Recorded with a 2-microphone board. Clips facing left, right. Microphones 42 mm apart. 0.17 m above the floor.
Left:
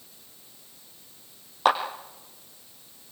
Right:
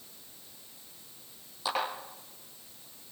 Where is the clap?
55° left (ahead or behind), 4.5 m.